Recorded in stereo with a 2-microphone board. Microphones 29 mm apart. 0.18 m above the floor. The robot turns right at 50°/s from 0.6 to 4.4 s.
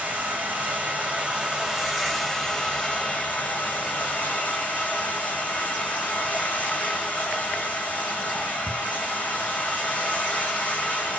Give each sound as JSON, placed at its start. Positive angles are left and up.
{"t": 0.0, "sound": "running water", "azimuth_deg": -75, "distance_m": 1.5}